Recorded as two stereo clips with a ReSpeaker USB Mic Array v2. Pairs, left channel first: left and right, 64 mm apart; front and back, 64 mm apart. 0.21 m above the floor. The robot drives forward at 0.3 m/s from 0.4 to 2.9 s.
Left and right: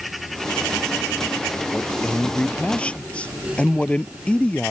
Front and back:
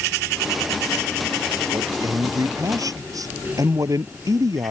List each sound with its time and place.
1.7 s a man speaking: 160° left